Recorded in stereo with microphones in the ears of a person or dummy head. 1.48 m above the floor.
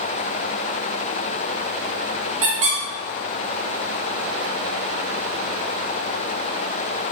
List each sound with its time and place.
2.4 s a squeak: 40° right (ahead or behind), 0.6 m